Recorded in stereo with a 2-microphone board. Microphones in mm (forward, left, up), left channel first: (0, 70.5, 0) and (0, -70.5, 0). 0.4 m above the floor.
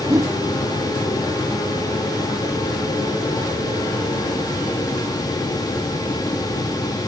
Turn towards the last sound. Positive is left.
turn(degrees=-25)  # may be behind; listen again after turning